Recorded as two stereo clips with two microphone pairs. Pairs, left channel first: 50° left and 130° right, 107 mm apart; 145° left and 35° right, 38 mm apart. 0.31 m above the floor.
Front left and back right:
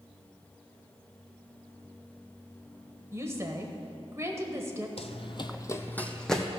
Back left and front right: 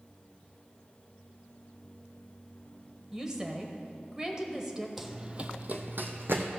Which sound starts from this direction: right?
A woman speaking, at 3.1 s.